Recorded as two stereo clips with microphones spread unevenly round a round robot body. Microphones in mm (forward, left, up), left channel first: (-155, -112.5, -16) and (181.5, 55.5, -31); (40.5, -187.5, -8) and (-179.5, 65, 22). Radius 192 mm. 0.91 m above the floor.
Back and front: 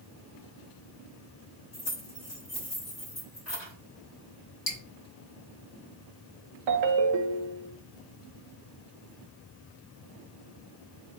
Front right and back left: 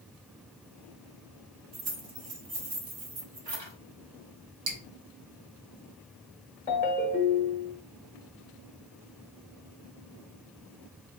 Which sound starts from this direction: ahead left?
A ringtone, at 6.7 s.